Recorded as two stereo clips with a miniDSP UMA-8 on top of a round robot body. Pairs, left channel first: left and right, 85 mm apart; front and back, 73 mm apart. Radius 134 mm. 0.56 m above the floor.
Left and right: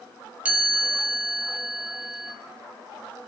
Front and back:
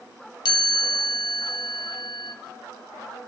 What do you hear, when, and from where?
0.5 s a chime: 15° right, 1.4 m